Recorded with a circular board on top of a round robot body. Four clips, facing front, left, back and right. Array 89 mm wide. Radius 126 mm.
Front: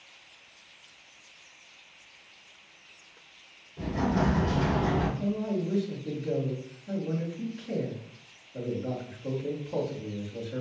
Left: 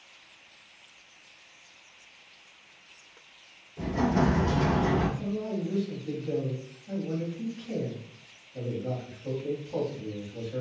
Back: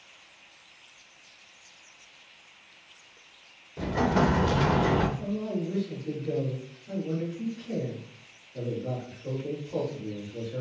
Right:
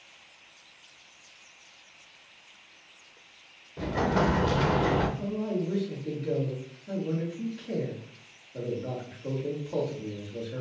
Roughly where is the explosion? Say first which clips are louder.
Even, back 3 dB; behind right.